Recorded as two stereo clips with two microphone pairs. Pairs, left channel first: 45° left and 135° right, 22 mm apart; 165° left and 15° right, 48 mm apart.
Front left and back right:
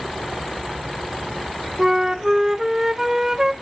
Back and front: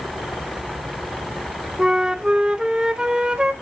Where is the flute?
75° right, 1.0 m.